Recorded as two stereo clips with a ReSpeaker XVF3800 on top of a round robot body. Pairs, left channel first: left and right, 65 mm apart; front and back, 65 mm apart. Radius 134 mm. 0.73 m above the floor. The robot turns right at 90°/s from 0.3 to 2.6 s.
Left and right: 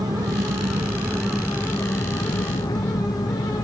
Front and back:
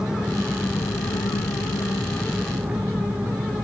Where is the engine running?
100° right; by 3.6 s 105° left.